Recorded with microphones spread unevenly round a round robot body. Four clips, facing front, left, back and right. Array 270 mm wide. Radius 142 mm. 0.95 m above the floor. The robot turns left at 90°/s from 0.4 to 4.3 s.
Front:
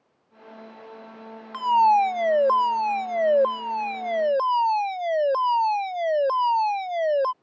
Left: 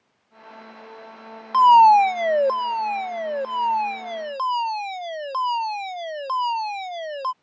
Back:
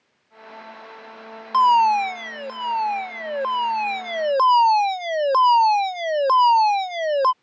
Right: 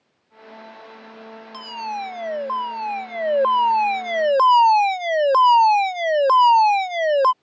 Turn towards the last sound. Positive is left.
turn(degrees=-120)